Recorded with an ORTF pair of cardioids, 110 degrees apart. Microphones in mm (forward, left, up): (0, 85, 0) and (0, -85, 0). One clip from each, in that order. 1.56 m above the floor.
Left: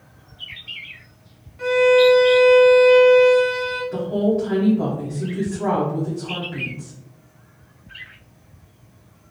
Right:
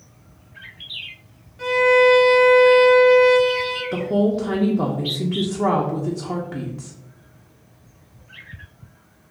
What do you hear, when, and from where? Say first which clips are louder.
1.6 s a violin: left 1 dB; 10° right, 1.6 m
3.9 s a woman speaking: right 1 dB; 40° right, 0.8 m